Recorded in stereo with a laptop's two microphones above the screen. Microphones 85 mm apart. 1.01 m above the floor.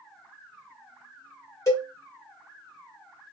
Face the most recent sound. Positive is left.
turn(degrees=35)  # may be behind; listen again after turning